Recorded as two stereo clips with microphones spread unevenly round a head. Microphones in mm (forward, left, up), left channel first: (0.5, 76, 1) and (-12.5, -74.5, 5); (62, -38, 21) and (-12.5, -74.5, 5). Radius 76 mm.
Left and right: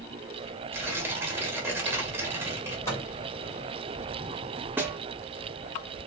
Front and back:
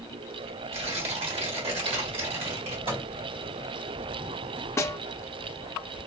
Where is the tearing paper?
170° right, 1.3 m.